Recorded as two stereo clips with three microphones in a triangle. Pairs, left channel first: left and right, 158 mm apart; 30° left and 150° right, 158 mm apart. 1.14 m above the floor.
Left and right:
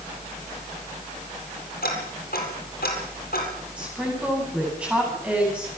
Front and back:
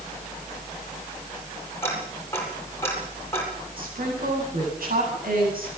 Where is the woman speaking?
170° right, 10 m.